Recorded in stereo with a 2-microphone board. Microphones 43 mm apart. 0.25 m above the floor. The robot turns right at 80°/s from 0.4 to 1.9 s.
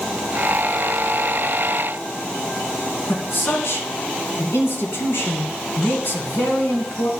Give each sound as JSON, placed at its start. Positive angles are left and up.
{"t": 3.1, "sound": "a man speaking", "side_deg": 60, "distance_m": 2.0}